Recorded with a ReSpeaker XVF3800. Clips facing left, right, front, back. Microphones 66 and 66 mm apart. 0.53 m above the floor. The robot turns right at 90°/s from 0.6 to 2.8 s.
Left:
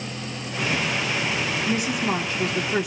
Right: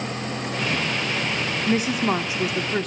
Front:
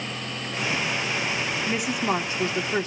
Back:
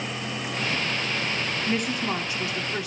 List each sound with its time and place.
1.7 s a woman speaking: 85° right, 1.2 m; by 2.9 s 15° left, 1.2 m